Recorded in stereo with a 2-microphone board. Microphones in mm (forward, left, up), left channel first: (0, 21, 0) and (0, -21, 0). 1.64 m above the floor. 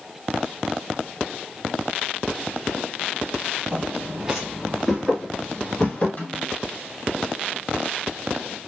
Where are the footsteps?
25° right (ahead or behind), 1.8 m; by 6.1 s 35° left (ahead or behind), 2.0 m.